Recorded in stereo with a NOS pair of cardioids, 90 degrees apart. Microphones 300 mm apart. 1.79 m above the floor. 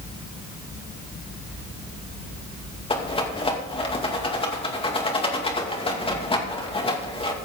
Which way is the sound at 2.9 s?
20° left.